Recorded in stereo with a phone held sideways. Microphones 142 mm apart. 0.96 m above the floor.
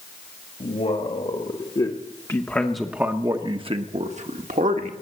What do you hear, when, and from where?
0.6 s a man speaking: 55° left (ahead or behind), 1.8 m; by 4.9 s 70° right (ahead or behind), 1.6 m